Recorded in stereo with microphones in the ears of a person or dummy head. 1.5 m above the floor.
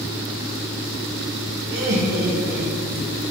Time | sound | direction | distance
1.7 | laughter | 65° right (ahead or behind) | 1.3 m